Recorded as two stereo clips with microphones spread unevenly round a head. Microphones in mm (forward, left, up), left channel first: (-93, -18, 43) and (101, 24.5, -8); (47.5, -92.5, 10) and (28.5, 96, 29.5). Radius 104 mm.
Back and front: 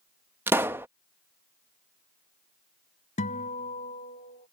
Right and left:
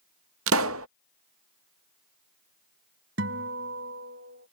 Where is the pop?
95° left.